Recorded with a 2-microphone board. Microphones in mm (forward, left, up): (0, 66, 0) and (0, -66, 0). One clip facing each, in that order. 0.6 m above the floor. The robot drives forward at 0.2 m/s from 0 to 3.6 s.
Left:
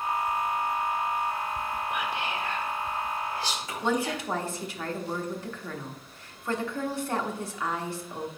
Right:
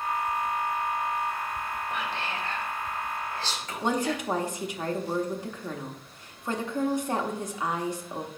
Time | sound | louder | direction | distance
1.9 | whispering | left 1 dB | 15° left (ahead or behind) | 1.4 m
3.8 | a woman speaking | right 1 dB | 15° right (ahead or behind) | 1.0 m